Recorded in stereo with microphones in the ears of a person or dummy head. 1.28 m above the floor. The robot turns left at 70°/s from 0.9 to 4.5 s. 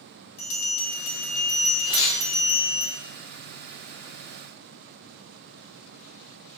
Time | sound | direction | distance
0.4 | a bell | 65° left | 1.3 m
1.9 | tearing paper | 70° left (ahead or behind) | 1.0 m